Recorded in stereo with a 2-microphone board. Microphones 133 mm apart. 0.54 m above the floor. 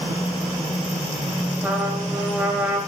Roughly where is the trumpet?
Centre.